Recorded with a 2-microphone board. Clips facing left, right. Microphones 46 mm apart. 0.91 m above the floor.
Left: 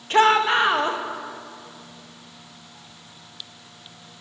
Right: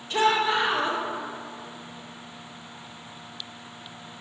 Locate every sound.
0.1 s a shout: 55° left (ahead or behind), 0.6 m